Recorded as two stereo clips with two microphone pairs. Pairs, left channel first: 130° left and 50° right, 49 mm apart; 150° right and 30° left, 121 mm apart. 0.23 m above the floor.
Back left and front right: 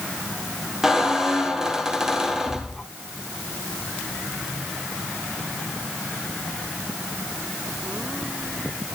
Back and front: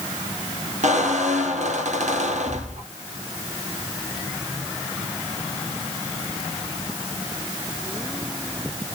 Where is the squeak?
30° left, 2.5 m.